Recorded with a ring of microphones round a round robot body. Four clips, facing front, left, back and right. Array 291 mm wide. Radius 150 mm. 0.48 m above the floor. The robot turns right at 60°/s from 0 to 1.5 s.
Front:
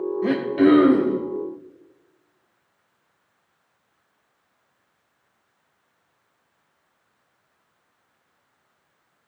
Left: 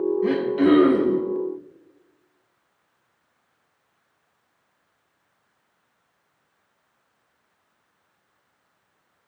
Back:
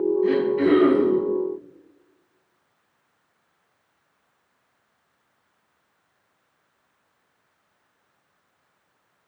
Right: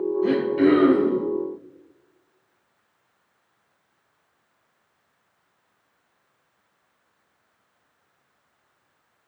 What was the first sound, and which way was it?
Throat clearing, 15° right.